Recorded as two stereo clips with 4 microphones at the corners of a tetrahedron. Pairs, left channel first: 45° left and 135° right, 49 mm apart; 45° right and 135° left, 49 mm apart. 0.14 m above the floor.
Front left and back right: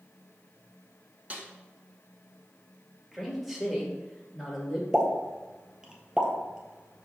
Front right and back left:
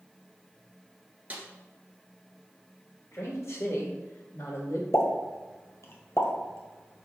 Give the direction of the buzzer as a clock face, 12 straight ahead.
I don't hear a buzzer.